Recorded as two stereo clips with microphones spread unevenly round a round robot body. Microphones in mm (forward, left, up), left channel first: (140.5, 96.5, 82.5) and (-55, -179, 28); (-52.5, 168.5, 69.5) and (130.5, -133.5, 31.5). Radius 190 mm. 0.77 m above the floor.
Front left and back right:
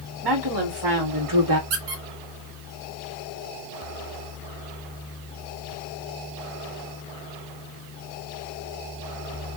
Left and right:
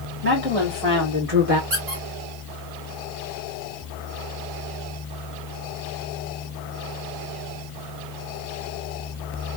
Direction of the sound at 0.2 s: 120° right.